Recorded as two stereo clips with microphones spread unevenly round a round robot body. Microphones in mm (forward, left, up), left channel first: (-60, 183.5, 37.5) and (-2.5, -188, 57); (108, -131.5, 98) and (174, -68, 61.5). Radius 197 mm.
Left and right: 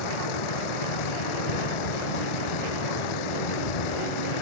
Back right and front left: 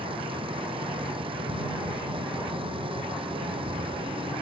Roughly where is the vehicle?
Left.